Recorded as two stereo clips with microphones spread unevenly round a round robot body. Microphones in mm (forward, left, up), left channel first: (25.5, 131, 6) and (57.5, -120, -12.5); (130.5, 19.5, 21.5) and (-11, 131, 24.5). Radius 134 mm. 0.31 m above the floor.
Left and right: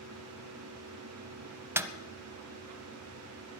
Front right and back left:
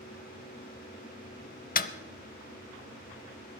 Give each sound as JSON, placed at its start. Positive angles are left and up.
{"t": 1.8, "sound": "a snare drum", "azimuth_deg": -5, "distance_m": 0.7}